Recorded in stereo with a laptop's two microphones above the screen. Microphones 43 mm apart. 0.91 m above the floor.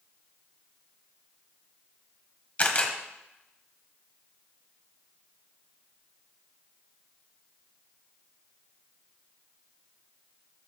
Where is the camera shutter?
40° left (ahead or behind), 1.2 m.